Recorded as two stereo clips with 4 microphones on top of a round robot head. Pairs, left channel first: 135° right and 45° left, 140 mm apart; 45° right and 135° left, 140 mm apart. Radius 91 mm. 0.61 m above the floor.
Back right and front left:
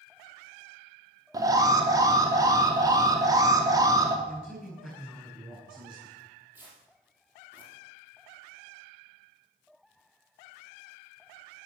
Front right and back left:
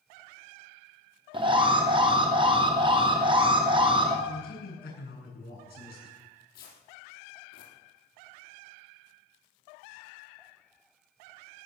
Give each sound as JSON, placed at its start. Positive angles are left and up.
{"t": 1.3, "sound": "an alarm", "azimuth_deg": 100, "distance_m": 2.5}
{"t": 4.3, "sound": "a man speaking", "azimuth_deg": -40, "distance_m": 8.5}
{"t": 6.2, "sound": "tearing paper", "azimuth_deg": -30, "distance_m": 4.5}